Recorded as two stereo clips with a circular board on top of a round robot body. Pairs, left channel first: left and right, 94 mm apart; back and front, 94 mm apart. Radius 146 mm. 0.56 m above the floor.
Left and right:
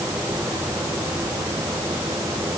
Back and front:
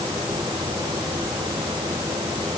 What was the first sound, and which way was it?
Only background noise.